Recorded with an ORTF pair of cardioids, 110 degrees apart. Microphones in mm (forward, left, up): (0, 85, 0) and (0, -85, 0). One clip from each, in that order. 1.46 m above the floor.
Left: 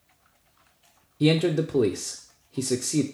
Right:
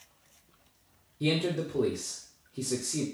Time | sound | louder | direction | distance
1.2 | a man speaking | left 7 dB | 35° left | 0.5 m